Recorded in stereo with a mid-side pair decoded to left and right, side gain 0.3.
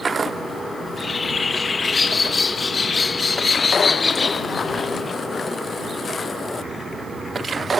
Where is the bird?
45° left.